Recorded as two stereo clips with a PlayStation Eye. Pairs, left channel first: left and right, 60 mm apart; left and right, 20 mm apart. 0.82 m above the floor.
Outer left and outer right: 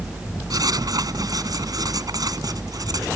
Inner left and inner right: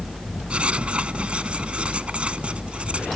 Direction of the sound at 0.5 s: 75° right (ahead or behind).